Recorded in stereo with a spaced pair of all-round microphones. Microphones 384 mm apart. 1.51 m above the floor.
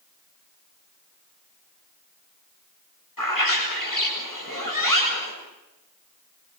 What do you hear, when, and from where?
3.2 s a bird: 60° left (ahead or behind), 8 m